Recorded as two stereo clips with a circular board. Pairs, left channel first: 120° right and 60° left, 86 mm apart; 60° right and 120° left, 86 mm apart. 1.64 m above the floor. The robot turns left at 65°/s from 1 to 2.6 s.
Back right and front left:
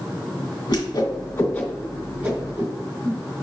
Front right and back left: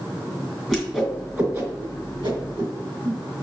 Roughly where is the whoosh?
Behind right.